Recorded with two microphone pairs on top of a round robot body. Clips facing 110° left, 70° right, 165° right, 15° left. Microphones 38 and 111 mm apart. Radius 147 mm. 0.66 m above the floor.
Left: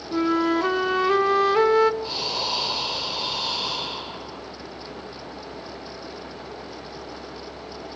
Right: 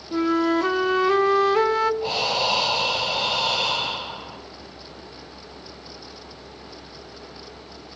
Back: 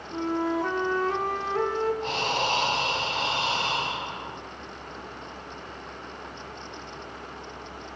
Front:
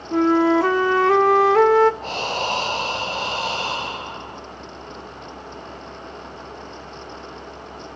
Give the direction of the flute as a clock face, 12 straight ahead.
11 o'clock.